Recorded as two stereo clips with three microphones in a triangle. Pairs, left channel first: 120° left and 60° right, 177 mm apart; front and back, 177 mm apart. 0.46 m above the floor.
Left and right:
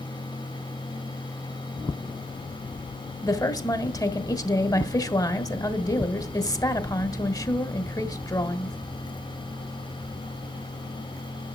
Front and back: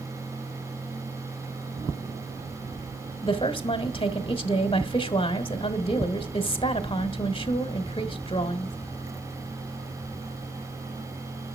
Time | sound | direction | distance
3.2 | a woman speaking | 55° left | 1.4 m